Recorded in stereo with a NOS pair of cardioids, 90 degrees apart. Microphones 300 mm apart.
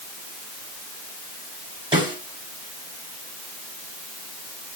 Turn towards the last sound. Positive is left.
turn(degrees=-15)